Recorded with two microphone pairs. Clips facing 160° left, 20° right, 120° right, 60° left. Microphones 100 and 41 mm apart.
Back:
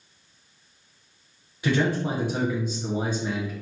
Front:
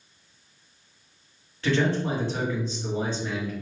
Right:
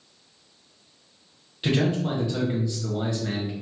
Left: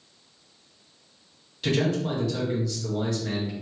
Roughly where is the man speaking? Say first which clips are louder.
Even, right 1 dB; behind right.